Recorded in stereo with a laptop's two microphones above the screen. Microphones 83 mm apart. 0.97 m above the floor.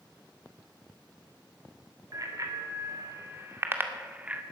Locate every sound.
2.1 s a bicycle bell: 45° right (ahead or behind), 2.5 m; by 4.4 s 15° right (ahead or behind), 1.7 m